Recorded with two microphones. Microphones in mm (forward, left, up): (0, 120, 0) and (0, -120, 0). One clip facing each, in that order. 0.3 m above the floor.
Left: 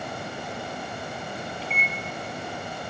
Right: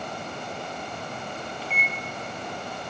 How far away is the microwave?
About 1.7 m.